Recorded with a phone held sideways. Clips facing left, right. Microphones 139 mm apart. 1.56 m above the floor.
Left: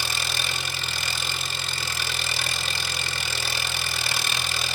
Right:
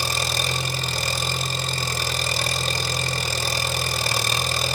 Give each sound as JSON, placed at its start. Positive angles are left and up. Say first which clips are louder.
{"t": 0.0, "sound": "an engine running", "louder": "right 5 dB", "side_deg": -35, "distance_m": 2.0}